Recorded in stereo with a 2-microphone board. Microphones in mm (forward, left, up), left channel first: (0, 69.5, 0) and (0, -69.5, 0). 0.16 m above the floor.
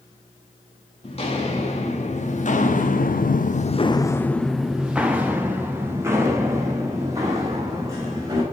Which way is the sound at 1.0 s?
45° left (ahead or behind).